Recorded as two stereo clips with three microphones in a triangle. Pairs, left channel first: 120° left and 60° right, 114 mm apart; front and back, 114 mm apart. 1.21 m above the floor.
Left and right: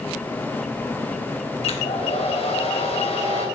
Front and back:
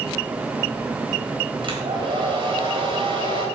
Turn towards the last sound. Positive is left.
turn(degrees=140)